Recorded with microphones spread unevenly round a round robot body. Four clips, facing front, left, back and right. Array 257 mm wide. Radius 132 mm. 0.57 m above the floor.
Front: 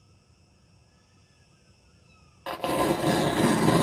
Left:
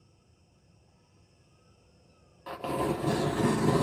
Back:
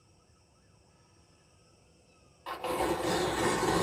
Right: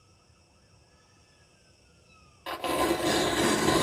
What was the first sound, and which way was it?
An insect, 120° left.